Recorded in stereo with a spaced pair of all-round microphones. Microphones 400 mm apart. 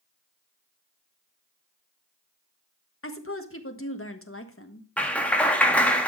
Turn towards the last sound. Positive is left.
turn(degrees=5)  # may be behind; listen again after turning